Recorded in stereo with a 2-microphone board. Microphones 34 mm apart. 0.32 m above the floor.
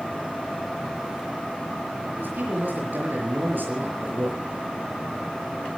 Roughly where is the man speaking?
Right.